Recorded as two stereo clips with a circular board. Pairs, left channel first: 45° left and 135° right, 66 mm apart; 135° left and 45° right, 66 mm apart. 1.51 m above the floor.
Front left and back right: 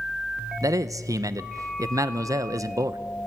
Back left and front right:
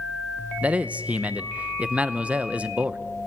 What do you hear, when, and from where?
0.6 s a man speaking: 110° right, 0.8 m